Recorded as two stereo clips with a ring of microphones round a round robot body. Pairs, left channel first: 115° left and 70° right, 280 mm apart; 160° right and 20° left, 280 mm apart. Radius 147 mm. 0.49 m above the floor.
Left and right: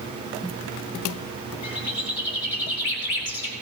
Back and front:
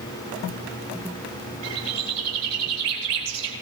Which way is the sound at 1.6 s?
65° left.